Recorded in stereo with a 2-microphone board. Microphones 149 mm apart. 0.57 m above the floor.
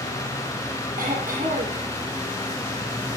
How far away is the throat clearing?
About 10 m.